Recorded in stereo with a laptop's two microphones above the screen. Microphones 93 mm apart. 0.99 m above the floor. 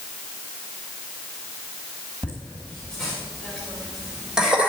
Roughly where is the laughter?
Centre.